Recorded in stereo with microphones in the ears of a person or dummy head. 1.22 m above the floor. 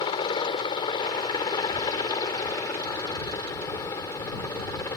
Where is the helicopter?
25° left (ahead or behind); by 5.0 s 15° left (ahead or behind).